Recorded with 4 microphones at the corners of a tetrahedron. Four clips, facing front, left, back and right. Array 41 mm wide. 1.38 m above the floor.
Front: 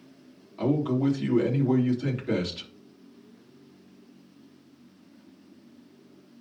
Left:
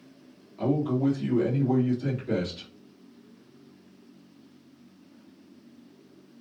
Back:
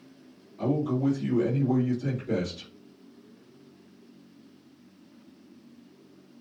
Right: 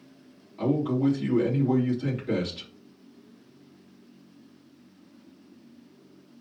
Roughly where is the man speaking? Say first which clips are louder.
Right 1 dB, front 2 dB; ahead.